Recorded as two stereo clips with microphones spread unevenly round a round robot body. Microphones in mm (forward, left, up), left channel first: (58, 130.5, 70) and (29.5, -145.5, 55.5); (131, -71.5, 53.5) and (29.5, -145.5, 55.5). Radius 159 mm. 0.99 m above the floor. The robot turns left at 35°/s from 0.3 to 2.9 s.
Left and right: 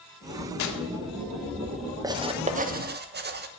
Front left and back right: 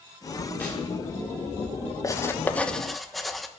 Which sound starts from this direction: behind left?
Tearing paper, at 0.6 s.